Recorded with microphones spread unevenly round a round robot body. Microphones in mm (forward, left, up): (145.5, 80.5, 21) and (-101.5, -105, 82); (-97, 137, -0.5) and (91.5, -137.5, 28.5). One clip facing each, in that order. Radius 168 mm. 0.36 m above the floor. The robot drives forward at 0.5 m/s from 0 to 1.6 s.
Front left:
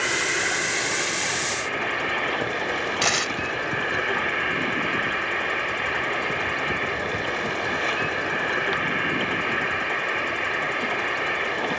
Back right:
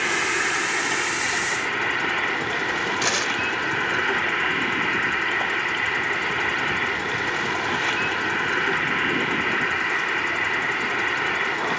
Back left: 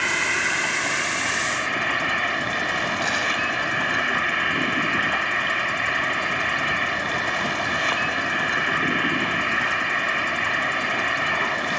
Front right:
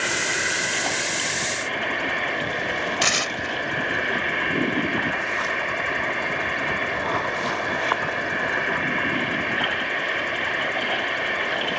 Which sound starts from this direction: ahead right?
Tearing paper, at 3.0 s.